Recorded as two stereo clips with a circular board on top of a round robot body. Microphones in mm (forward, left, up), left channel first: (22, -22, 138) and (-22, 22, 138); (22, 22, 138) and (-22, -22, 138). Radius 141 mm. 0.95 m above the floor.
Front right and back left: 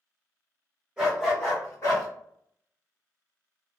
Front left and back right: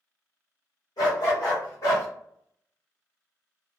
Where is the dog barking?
55° left, 1.4 m; by 2.1 s 15° right, 1.0 m.